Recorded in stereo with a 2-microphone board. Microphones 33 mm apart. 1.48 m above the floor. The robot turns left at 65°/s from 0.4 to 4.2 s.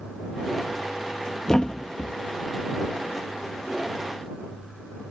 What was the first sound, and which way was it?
A thud, 20° left (ahead or behind).